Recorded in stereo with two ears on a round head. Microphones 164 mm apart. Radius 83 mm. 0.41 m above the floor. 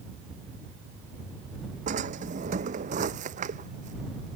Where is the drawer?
45° right (ahead or behind).